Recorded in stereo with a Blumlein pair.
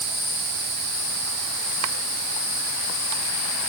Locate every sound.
Only background noise.